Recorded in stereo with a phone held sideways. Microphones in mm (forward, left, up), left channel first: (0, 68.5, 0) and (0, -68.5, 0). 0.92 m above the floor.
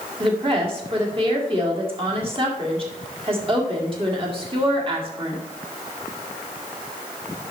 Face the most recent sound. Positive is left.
turn(degrees=-40)  # may be behind; listen again after turning